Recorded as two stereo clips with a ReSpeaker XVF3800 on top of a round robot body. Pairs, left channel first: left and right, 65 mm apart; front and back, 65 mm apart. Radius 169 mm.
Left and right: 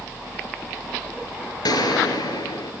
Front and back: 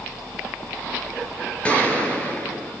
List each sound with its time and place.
1.6 s a gunshot: 75° left, 3.5 m